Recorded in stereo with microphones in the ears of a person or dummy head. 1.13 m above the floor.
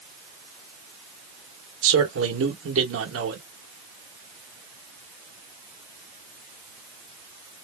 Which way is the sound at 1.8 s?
75° right (ahead or behind).